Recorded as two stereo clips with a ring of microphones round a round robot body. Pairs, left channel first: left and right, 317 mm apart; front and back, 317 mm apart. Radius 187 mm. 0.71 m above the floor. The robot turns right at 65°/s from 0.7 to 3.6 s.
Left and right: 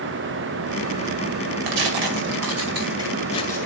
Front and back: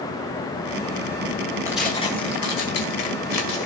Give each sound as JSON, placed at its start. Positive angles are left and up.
{"t": 1.7, "sound": "tearing paper", "azimuth_deg": -100, "distance_m": 2.0}